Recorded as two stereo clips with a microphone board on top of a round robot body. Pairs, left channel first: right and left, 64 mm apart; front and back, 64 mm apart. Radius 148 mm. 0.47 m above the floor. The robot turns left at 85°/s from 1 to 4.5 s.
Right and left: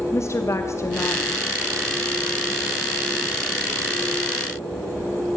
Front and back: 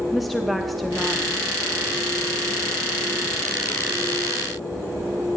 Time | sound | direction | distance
0.1 | a woman speaking | 90° right | 1.0 m